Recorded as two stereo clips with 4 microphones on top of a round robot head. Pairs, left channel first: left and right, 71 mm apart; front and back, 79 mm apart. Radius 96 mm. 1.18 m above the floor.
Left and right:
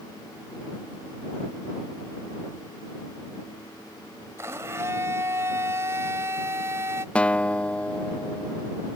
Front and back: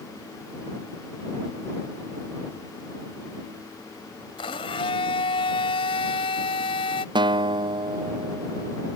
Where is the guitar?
165° left.